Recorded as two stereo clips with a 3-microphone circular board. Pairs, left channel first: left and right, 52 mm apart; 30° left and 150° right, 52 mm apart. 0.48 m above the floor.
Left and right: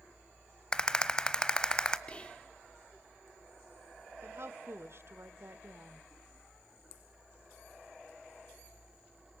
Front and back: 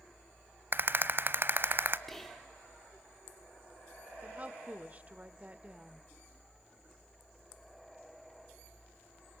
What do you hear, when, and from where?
0.7 s a rattle: 165° left, 0.9 m
2.1 s whispering: 105° left, 1.3 m
4.2 s a woman speaking: 100° right, 1.4 m